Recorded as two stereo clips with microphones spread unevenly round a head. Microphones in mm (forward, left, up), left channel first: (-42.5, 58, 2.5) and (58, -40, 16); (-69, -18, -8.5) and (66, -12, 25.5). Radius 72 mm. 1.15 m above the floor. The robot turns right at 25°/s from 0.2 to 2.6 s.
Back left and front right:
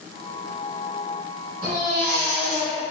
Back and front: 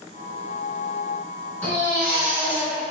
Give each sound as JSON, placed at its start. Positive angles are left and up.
{"t": 1.6, "sound": "a baby crying", "azimuth_deg": -90, "distance_m": 2.0}